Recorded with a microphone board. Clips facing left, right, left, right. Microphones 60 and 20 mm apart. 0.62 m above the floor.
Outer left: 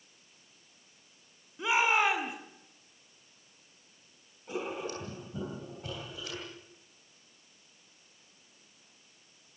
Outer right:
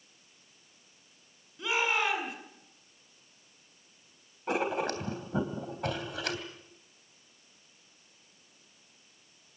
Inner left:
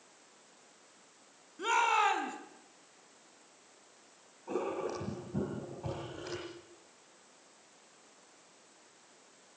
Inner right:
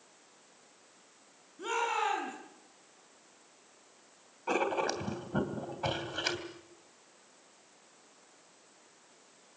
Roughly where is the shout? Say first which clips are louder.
Outer left 3 dB, inner left 4 dB; left.